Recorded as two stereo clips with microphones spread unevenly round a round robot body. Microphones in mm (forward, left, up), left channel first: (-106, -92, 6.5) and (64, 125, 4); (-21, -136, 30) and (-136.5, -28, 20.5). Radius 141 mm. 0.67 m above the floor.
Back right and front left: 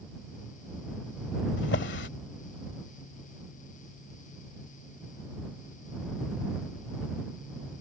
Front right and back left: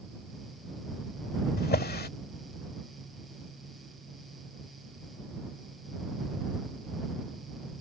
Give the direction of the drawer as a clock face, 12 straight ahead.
2 o'clock.